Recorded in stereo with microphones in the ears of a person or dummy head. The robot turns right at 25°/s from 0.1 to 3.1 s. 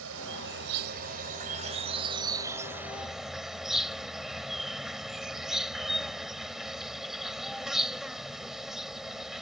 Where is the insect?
75° right; by 9.4 s straight ahead.